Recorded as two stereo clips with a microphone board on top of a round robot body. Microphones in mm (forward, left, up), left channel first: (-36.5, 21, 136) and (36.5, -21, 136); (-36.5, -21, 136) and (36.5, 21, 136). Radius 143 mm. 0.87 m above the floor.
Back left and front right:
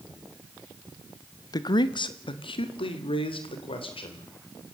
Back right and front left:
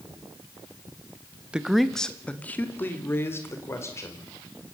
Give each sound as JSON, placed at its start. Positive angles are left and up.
{"t": 1.5, "sound": "a man speaking", "azimuth_deg": 110, "distance_m": 1.1}